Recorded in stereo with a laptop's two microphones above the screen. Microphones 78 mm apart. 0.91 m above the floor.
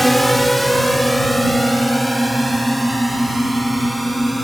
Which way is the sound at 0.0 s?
Centre (ahead or behind).